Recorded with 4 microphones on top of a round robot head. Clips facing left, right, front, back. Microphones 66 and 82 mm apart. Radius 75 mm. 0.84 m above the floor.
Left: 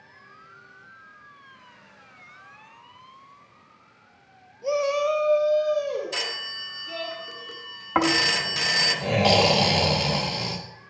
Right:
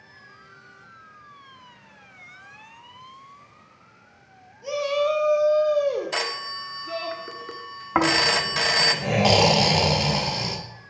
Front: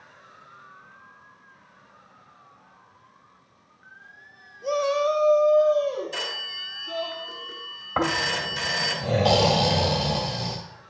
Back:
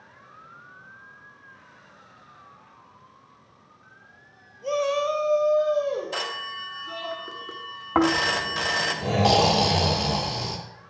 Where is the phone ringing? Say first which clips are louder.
Right 4 dB, back 3 dB; 140° right, 0.8 m.